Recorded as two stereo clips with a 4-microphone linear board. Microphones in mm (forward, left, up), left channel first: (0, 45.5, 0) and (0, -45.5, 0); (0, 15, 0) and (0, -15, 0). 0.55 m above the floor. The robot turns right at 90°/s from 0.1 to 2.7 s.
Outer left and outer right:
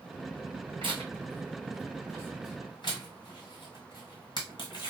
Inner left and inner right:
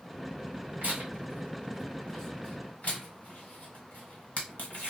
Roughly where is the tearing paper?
Right.